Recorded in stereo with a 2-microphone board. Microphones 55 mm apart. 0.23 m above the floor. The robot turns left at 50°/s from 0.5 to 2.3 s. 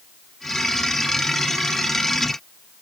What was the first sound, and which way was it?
Only background noise.